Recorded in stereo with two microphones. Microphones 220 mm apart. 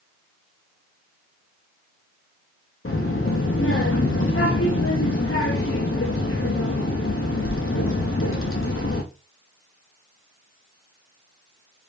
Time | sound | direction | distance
2.9 | a child speaking | 75° left (ahead or behind) | 0.6 m